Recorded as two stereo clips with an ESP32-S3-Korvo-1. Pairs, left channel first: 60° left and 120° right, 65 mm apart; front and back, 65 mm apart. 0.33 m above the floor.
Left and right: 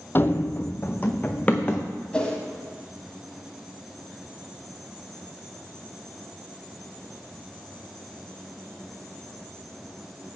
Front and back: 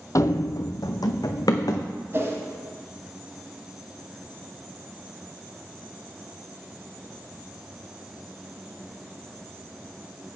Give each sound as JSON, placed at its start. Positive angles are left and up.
{"t": 0.1, "sound": "running footsteps", "azimuth_deg": 15, "distance_m": 0.5}
{"t": 2.1, "sound": "a whoosh", "azimuth_deg": 135, "distance_m": 1.5}